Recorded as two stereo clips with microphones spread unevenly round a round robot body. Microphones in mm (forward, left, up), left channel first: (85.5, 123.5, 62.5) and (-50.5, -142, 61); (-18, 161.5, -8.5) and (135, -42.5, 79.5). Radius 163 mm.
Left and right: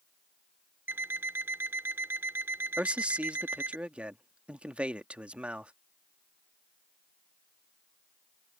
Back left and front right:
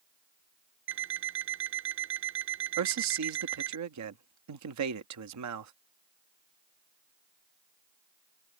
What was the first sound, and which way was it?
An alarm clock, 35° right.